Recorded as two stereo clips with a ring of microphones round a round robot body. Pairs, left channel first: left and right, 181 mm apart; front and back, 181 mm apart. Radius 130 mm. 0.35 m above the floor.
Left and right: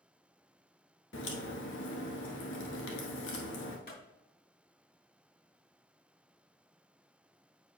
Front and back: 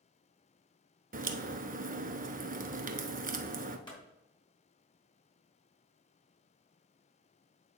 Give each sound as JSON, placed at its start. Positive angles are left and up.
{"t": 1.1, "sound": "a crack", "azimuth_deg": 135, "distance_m": 0.9}
{"t": 3.9, "sound": "a clap", "azimuth_deg": 65, "distance_m": 3.5}